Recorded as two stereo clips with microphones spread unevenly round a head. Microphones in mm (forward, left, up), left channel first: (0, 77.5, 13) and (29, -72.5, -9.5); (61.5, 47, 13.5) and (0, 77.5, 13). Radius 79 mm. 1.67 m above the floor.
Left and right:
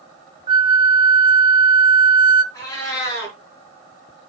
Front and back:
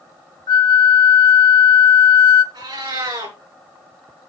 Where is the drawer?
No drawer in this recording.